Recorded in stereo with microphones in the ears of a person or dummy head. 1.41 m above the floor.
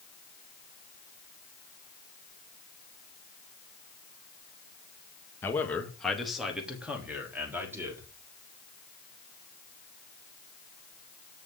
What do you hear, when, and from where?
5.4 s a man speaking: 10° left (ahead or behind), 2 m; by 8.1 s 20° right (ahead or behind), 4.5 m